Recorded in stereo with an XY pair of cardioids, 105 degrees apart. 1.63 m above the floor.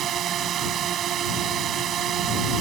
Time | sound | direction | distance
0.0 | a drone | 65° right | ?